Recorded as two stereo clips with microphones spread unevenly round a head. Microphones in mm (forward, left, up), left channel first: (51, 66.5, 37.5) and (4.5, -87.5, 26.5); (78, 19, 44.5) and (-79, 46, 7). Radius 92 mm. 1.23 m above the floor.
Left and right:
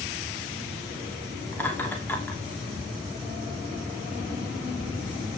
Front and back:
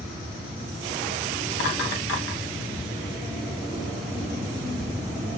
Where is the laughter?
5° right, 3 m.